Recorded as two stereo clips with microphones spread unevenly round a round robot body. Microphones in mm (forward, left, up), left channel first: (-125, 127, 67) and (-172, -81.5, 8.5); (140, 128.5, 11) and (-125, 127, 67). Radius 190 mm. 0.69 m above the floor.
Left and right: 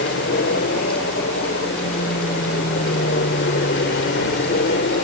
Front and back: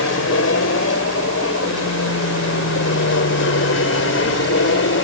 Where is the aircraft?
25° left.